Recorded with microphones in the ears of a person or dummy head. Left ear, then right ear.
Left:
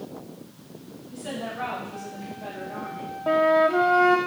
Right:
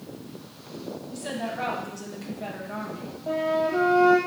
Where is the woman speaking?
35° right (ahead or behind), 2.5 m; by 3.1 s 80° right, 1.6 m.